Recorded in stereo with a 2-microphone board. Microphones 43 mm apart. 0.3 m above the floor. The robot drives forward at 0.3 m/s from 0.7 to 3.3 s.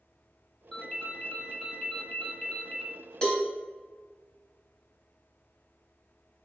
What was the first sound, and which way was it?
A ringtone, 10° left (ahead or behind).